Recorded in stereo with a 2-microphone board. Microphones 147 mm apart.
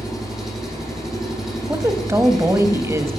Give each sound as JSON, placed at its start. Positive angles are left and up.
{"t": 0.0, "sound": "an engine running", "side_deg": -5, "distance_m": 6.0}
{"t": 1.7, "sound": "a woman speaking", "side_deg": -20, "distance_m": 1.4}